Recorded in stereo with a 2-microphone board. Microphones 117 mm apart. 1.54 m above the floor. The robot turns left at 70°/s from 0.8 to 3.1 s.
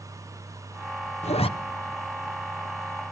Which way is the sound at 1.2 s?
70° left (ahead or behind).